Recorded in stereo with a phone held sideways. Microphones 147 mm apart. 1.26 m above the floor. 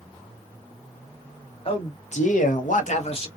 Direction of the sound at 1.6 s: 40° left (ahead or behind).